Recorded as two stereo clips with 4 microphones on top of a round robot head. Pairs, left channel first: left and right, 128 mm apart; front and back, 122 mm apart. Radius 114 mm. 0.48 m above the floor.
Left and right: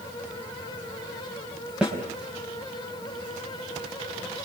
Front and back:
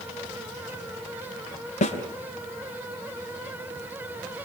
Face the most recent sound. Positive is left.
turn(degrees=-5)